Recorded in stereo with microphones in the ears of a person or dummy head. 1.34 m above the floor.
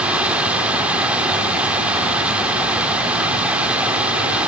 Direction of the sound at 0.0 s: 5° right (ahead or behind).